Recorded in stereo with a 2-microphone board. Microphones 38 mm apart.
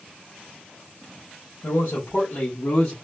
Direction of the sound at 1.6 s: 75° left (ahead or behind).